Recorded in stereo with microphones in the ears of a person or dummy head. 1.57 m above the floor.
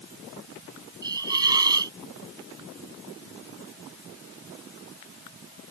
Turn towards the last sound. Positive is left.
turn(degrees=-30)  # may be behind; listen again after turning